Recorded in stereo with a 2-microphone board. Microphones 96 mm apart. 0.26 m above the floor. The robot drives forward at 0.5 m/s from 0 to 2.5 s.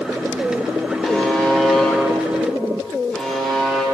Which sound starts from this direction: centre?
A buzzer, at 1.0 s.